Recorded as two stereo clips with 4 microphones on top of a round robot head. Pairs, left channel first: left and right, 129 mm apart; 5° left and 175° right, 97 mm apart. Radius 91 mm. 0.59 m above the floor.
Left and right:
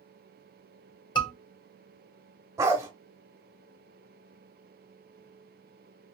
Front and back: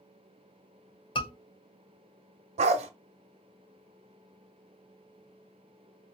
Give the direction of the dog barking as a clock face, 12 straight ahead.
5 o'clock.